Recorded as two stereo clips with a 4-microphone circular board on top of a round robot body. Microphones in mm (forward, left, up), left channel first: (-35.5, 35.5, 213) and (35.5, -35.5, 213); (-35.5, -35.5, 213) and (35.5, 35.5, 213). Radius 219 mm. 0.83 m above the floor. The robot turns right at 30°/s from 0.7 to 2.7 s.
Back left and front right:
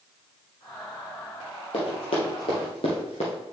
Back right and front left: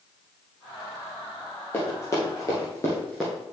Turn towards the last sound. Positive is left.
turn(degrees=120)